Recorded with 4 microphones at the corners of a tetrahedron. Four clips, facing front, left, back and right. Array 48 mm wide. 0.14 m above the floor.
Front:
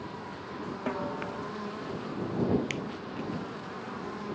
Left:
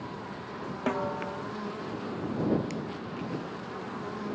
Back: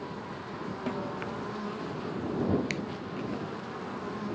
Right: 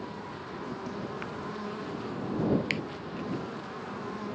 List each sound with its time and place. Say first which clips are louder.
0.9 s a snare drum: left 6 dB, front 2 dB; 75° left
2.7 s a finger snap: right 5 dB, back 1 dB; 85° right